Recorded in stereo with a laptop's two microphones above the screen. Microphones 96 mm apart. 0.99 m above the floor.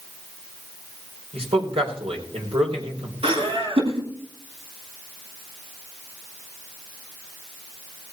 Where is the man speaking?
75° right (ahead or behind), 4 m.